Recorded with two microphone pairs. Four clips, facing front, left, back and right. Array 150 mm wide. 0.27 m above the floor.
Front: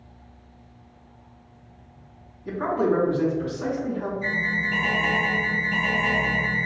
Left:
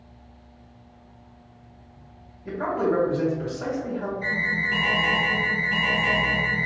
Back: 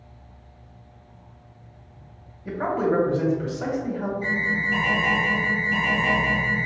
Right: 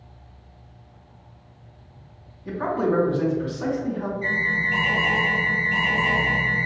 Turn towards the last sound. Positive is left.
turn(degrees=95)